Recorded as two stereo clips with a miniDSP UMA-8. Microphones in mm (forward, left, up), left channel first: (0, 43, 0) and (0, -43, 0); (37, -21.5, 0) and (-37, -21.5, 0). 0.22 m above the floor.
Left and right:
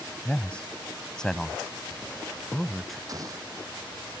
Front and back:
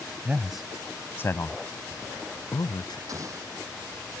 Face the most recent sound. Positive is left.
turn(degrees=-135)